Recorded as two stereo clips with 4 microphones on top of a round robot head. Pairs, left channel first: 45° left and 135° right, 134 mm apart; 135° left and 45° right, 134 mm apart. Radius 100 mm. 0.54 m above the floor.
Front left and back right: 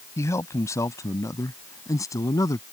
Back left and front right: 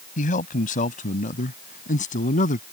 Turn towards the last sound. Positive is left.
turn(degrees=110)